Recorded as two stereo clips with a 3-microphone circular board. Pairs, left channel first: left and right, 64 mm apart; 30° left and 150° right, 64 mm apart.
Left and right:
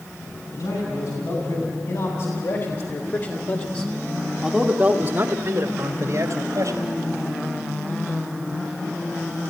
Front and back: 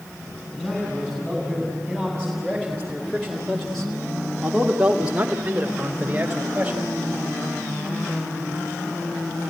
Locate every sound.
0.5 s a man speaking: 105° left, 5.5 m; by 6.8 s 80° right, 3.5 m